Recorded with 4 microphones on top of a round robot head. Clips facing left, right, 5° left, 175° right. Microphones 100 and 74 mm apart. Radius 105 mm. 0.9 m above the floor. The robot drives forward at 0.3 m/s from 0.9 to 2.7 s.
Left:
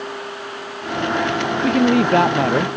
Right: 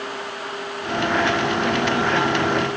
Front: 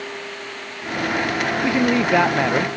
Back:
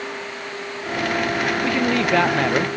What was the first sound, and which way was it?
A man speaking, 75° left.